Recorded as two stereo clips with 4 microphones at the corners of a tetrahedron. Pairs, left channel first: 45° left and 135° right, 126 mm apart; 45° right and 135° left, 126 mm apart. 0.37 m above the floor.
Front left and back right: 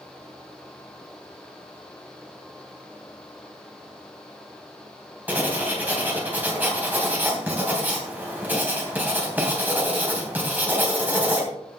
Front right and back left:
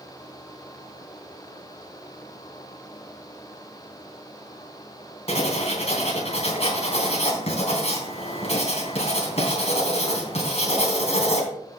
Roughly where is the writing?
Ahead right.